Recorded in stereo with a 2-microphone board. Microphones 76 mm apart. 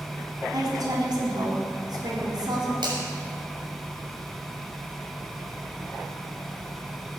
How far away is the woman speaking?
About 3.5 m.